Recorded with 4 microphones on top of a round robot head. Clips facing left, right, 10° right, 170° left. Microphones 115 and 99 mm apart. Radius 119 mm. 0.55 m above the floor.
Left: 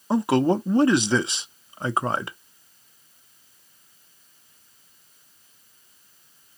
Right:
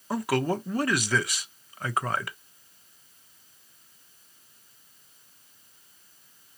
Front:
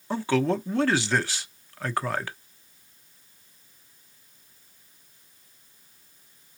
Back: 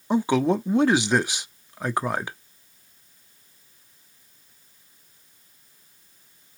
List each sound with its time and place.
0.1 s a man speaking: 120° left, 0.7 m